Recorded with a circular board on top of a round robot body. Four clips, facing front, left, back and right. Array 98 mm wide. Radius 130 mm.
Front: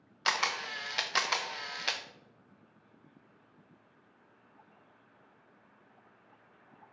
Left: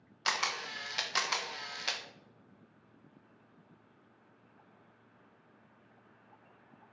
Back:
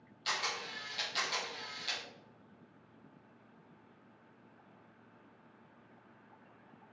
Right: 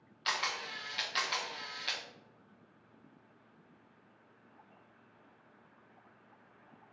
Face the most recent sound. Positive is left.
turn(degrees=20)